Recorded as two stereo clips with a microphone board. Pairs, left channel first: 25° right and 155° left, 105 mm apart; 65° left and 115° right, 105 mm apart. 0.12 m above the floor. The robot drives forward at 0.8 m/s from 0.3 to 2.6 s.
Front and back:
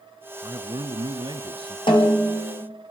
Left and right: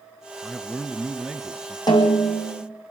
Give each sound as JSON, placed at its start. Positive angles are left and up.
{"t": 0.4, "sound": "a man speaking", "azimuth_deg": 155, "distance_m": 1.5}
{"t": 1.9, "sound": "a snare drum", "azimuth_deg": 15, "distance_m": 4.5}